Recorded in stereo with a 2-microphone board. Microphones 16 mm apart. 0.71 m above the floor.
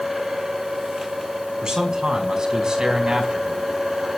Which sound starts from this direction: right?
A man speaking, at 1.6 s.